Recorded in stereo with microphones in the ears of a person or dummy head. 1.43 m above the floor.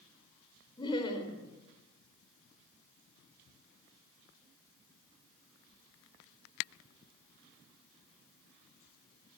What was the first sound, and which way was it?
Laughter, 20° left (ahead or behind).